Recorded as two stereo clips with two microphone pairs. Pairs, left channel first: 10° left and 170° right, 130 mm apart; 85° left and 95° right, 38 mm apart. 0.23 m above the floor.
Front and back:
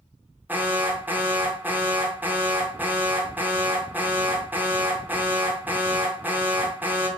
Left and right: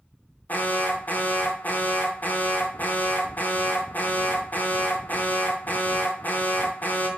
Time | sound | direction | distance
0.5 | an alarm | 115° left | 2.5 m